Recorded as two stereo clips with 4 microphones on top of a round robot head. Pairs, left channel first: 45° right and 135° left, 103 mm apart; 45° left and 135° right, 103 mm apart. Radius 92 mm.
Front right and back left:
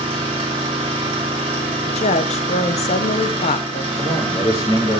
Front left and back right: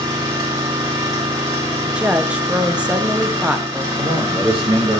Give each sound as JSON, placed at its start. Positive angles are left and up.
{"t": 0.0, "sound": "an engine running", "azimuth_deg": 175, "distance_m": 3.5}
{"t": 1.9, "sound": "a woman speaking", "azimuth_deg": -55, "distance_m": 0.7}
{"t": 4.0, "sound": "a man speaking", "azimuth_deg": -105, "distance_m": 4.0}